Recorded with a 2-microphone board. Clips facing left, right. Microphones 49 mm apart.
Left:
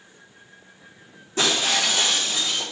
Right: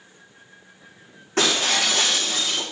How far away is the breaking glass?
About 6.5 m.